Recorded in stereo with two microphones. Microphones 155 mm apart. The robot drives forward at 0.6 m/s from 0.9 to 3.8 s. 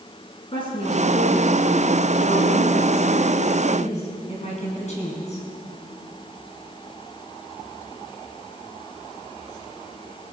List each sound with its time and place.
0.5 s a woman speaking: 35° left (ahead or behind), 4.5 m; by 5.4 s 50° left (ahead or behind), 3.5 m